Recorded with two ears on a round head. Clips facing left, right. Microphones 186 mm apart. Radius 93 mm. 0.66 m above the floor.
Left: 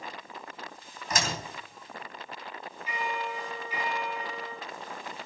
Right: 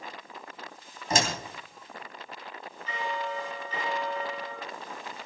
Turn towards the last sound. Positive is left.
turn(degrees=10)  # may be behind; listen again after turning